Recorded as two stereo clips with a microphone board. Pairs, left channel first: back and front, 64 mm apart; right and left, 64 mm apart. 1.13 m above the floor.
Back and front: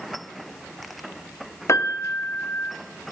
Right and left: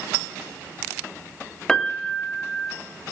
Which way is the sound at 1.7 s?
165° right.